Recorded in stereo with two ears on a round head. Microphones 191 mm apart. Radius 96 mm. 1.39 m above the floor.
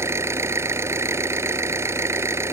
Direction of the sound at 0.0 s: 15° right (ahead or behind).